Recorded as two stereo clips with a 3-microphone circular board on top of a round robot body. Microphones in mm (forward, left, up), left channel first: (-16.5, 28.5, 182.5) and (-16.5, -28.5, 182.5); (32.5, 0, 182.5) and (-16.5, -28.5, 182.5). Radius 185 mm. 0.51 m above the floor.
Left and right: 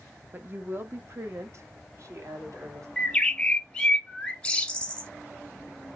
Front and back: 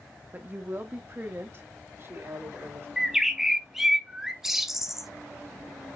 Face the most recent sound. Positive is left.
turn(degrees=135)